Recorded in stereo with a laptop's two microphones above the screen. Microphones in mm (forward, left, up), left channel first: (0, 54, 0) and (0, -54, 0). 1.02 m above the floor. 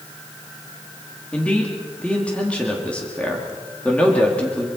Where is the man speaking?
10° left (ahead or behind), 2.5 m.